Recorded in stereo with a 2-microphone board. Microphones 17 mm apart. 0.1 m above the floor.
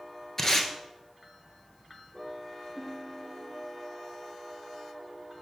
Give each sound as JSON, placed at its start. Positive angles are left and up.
{"t": 0.4, "sound": "tape being pulled", "side_deg": 25, "distance_m": 0.9}
{"t": 2.8, "sound": "a guitar", "side_deg": 10, "distance_m": 3.0}